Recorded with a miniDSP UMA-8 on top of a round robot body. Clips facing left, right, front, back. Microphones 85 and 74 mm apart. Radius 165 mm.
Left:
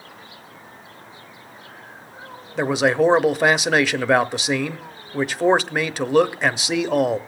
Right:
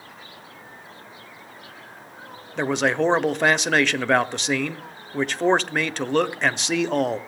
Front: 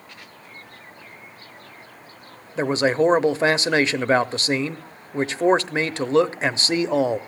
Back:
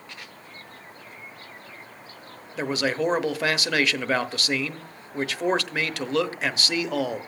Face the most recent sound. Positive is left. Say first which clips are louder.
# left 3 dB, front 6 dB
turn(degrees=15)